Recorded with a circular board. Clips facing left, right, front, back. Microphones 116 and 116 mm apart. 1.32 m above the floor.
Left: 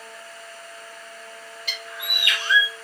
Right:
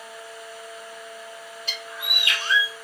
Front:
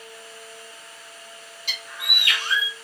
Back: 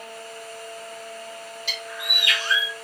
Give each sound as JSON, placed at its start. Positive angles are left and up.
{"t": 1.7, "sound": "a bird", "azimuth_deg": -35, "distance_m": 1.6}